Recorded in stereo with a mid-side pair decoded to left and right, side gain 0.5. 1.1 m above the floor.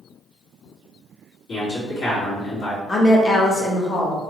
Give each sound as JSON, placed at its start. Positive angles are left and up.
{"t": 1.5, "sound": "a man speaking", "azimuth_deg": 60, "distance_m": 1.7}
{"t": 2.9, "sound": "a woman speaking", "azimuth_deg": 30, "distance_m": 0.9}